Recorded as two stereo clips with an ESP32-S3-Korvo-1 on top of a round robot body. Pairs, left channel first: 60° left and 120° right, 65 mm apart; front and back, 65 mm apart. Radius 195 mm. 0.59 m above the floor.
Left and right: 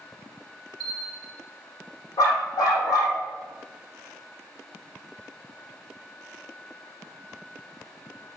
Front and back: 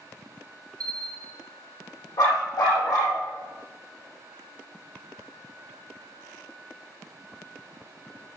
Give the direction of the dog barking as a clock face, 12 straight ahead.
11 o'clock.